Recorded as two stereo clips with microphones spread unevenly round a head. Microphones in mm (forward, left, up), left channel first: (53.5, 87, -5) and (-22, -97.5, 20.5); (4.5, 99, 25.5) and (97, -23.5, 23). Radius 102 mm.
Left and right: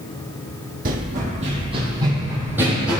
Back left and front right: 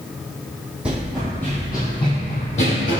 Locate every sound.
0.8 s running footsteps: 135° right, 2 m; by 3.0 s 165° left, 2.5 m